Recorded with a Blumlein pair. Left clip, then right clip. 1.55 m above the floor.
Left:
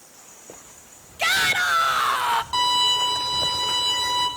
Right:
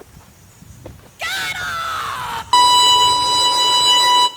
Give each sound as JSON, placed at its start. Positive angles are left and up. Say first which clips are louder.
{"t": 1.2, "sound": "a shout", "louder": "left 2 dB", "azimuth_deg": 10, "distance_m": 1.4}
{"t": 2.5, "sound": "a violin", "louder": "right 12 dB", "azimuth_deg": -55, "distance_m": 1.6}